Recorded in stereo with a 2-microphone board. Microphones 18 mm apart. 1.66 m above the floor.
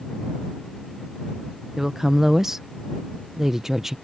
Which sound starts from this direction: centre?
A woman speaking, at 1.8 s.